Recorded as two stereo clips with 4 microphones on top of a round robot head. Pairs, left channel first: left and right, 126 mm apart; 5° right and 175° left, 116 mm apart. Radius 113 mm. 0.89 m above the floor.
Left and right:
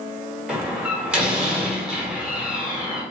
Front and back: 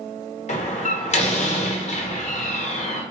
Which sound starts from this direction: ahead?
A door slam, at 0.5 s.